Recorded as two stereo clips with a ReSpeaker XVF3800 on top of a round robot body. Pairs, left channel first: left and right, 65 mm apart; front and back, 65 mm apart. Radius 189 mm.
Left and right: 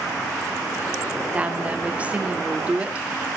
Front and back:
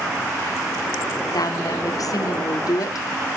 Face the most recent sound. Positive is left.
turn(degrees=-20)